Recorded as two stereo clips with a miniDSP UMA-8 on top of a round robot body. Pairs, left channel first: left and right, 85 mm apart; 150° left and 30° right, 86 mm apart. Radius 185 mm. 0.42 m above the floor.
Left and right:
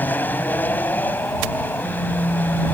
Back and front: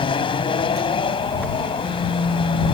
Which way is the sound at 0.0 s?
155° left.